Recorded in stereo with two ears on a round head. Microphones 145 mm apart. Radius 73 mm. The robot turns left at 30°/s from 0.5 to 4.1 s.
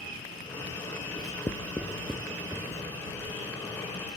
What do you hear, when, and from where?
1.2 s writing: 30° left (ahead or behind); by 2.8 s 20° right (ahead or behind)